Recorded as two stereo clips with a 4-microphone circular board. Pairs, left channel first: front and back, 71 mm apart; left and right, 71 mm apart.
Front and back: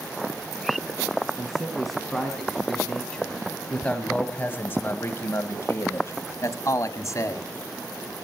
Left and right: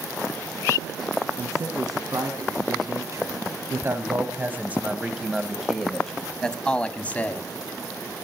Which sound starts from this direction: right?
A man speaking, at 1.4 s.